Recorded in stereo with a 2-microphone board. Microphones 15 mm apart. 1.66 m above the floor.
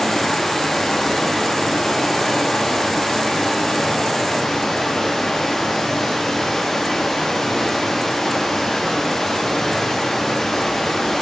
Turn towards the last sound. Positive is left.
turn(degrees=30)  # may be behind; listen again after turning